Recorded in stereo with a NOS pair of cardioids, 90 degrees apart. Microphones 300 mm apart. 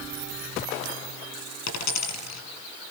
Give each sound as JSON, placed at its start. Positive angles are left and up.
{"t": 1.7, "sound": "a dropped coin", "azimuth_deg": 65, "distance_m": 6.5}